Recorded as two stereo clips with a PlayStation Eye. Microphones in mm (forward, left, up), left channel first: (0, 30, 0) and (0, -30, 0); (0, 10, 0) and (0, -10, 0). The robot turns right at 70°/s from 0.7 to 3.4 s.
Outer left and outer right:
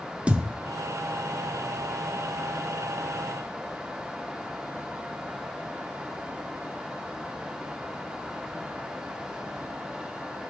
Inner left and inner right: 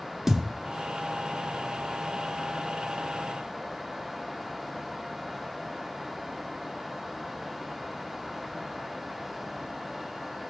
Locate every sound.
0.3 s a thud: 20° right (ahead or behind), 0.5 m